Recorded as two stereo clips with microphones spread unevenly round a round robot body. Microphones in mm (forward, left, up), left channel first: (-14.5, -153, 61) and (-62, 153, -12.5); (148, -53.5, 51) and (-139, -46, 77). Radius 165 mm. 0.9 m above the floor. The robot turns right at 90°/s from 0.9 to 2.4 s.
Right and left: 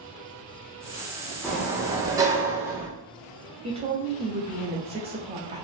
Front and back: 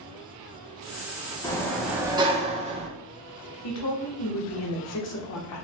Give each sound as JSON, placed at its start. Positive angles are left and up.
{"t": 1.4, "sound": "a sliding door", "azimuth_deg": 40, "distance_m": 0.6}
{"t": 3.6, "sound": "a woman speaking", "azimuth_deg": 30, "distance_m": 0.8}